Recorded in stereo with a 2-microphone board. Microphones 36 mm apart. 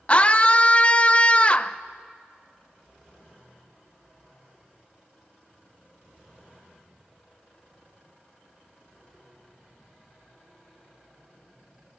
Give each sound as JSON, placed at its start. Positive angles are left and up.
{"t": 0.1, "sound": "a scream", "side_deg": 30, "distance_m": 0.7}